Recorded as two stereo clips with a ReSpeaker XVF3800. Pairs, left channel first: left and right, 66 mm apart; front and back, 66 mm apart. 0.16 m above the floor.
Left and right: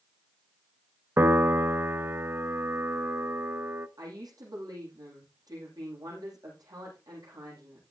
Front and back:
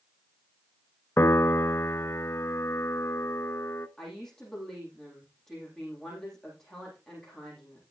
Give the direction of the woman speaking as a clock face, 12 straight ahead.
3 o'clock.